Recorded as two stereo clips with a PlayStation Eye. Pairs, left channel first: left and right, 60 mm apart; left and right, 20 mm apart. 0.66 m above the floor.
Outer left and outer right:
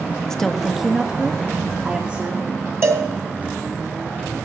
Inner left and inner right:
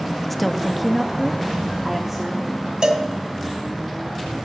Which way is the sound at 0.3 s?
10° left (ahead or behind).